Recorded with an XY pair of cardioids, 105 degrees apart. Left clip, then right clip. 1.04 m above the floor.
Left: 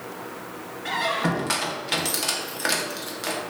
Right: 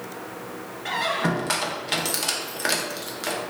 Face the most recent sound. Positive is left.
turn(degrees=-5)